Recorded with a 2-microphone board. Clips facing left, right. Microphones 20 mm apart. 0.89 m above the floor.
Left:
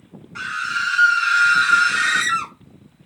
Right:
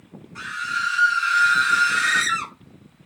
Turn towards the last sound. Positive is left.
turn(degrees=-10)  # may be behind; listen again after turning